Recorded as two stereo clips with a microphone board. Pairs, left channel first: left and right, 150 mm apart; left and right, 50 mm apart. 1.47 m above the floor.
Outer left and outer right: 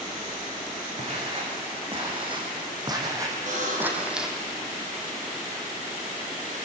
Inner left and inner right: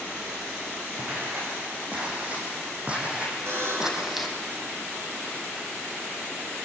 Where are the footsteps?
40° right (ahead or behind), 7 m; by 4.4 s centre (ahead or behind), 3.5 m.